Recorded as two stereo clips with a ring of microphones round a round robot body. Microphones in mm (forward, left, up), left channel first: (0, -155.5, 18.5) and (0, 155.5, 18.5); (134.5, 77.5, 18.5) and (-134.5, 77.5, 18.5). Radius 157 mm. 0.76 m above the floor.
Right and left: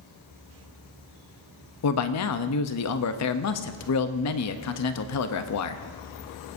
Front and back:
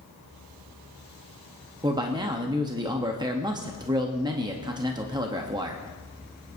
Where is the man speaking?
110° right, 0.7 m.